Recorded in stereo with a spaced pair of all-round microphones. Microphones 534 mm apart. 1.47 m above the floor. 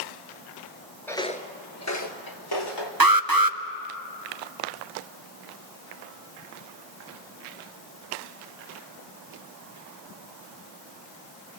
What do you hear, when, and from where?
1.1 s footsteps: 5° left (ahead or behind), 1.5 m; by 2.9 s 50° left (ahead or behind), 2.5 m
3.0 s an alarm: 40° right (ahead or behind), 0.7 m